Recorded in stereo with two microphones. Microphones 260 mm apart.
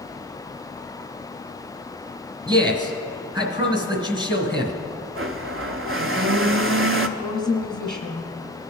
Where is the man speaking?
15° right (ahead or behind), 1.3 m.